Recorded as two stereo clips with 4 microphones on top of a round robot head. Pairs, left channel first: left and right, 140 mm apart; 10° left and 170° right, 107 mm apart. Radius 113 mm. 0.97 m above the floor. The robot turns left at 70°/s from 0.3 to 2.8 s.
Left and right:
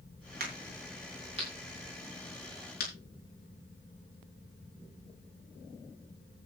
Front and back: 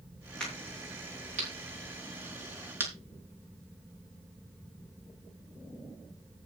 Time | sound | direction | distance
0.4 | a crack | 75° right | 6 m